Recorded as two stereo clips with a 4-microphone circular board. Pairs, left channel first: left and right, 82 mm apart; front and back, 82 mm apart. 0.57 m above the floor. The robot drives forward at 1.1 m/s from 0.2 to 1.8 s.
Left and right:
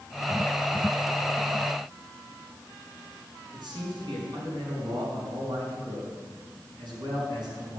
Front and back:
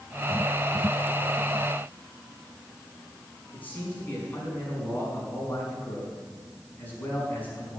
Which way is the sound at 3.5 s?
65° right.